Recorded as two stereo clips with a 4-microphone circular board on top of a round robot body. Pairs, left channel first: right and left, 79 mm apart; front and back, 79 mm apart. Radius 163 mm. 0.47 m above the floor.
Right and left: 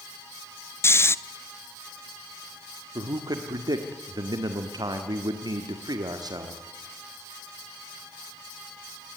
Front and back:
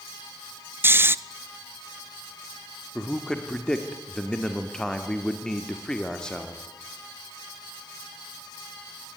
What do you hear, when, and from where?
0.8 s snoring: 130° right, 0.7 m
3.0 s a man speaking: 80° left, 1.5 m